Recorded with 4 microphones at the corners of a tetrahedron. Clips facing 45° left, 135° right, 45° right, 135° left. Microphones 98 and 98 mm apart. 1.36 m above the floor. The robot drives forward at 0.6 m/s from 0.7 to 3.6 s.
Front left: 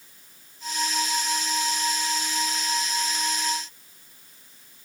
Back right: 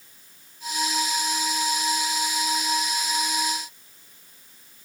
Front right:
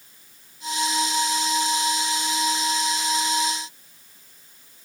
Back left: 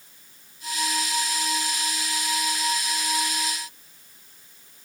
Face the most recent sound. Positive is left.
No sound to turn to.